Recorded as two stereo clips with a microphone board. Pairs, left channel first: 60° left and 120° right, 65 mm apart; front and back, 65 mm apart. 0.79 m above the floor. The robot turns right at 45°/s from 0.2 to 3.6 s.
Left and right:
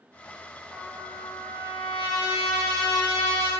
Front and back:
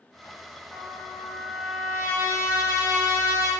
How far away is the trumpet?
About 1.1 m.